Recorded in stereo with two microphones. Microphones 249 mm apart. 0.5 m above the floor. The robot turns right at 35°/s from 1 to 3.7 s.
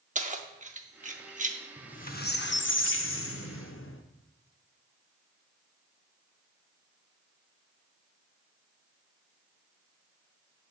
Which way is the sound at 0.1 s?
30° right (ahead or behind).